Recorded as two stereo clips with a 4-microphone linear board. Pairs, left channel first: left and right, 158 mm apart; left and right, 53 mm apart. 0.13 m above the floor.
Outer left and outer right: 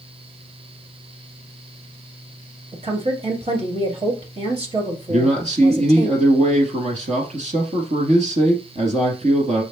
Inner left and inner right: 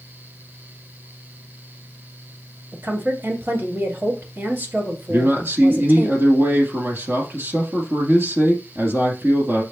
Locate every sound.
2.7 s a woman speaking: 45° right (ahead or behind), 2 m
5.1 s a man speaking: 50° right (ahead or behind), 2.5 m